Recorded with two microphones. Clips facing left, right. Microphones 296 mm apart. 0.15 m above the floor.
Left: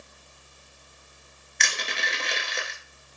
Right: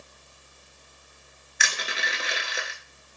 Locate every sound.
1.6 s crushing: 5° right (ahead or behind), 0.5 m